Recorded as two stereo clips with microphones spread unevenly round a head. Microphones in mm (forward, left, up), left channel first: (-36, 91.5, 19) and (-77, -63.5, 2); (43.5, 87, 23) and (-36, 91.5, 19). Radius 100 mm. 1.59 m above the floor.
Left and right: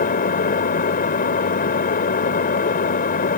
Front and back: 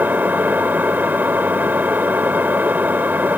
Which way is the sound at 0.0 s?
110° left.